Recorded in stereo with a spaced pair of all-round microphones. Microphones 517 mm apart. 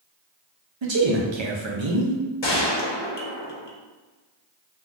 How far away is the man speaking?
About 0.7 m.